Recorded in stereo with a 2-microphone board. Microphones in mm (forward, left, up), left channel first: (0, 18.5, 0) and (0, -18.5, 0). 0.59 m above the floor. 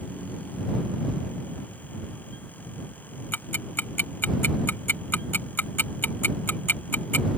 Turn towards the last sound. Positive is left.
turn(degrees=75)  # may be behind; listen again after turning